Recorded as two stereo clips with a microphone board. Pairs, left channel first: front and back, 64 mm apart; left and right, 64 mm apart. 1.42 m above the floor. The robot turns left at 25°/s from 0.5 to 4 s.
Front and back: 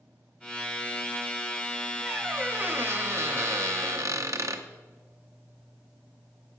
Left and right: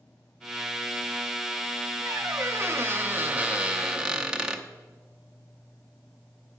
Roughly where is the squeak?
Behind right.